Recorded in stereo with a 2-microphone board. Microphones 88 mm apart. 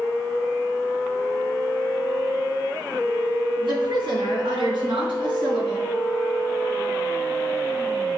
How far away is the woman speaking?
About 3 m.